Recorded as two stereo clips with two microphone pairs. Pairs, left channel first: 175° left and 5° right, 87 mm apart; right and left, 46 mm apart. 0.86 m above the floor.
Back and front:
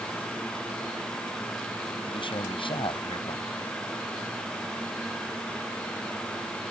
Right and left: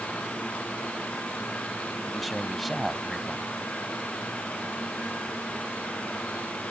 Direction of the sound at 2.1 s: Straight behind.